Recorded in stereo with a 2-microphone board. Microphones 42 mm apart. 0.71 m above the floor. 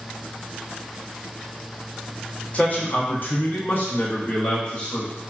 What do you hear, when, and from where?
2.5 s a man speaking: 30° left (ahead or behind), 0.8 m; by 5.1 s 35° left (ahead or behind), 1.3 m